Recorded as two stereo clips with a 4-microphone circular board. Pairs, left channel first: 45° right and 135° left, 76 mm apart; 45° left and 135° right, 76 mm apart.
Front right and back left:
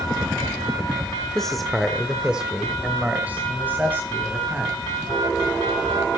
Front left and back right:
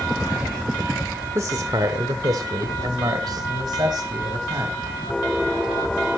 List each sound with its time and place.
1.4 s a man speaking: 125° right, 1.1 m; by 4.8 s 165° right, 3 m